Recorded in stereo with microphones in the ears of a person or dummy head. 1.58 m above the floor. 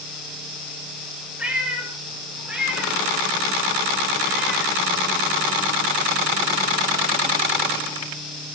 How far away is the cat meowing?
About 9 m.